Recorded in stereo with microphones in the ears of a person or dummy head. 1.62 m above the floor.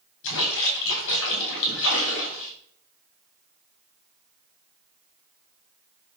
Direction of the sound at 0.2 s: 70° left (ahead or behind).